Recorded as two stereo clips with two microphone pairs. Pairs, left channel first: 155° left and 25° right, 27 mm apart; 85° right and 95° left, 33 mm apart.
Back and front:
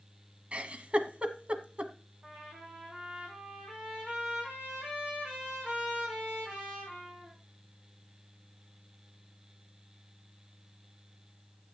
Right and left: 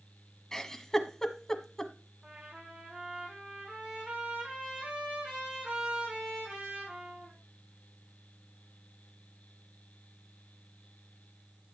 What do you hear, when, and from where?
0.5 s a giggle: 20° right, 1.2 m
2.2 s a trumpet: 35° left, 6 m